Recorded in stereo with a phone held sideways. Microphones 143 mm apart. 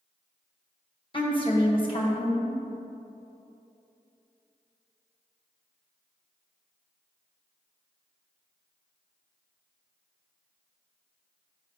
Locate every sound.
1.1 s a woman speaking: 35° left (ahead or behind), 1.4 m